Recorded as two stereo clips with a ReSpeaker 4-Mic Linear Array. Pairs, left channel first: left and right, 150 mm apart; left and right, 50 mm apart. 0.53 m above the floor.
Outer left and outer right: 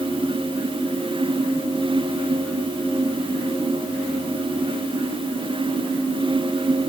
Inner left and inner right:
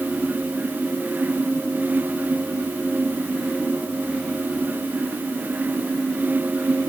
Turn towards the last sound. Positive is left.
No sound to turn to.